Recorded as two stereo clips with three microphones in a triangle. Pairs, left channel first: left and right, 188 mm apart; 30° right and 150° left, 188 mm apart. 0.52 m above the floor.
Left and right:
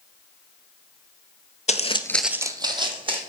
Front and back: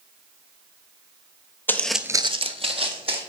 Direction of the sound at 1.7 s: 45° left.